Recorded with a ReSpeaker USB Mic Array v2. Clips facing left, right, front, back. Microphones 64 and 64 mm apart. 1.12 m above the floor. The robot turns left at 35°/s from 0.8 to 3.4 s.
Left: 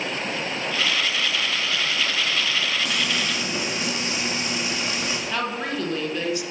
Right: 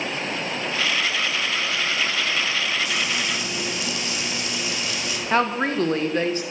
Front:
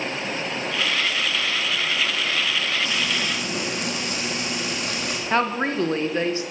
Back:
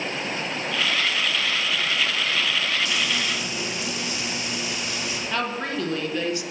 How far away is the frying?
About 1.9 m.